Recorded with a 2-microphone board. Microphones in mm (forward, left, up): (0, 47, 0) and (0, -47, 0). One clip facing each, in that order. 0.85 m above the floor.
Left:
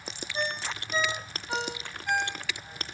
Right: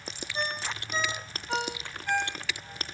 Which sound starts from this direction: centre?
A ringtone, at 0.3 s.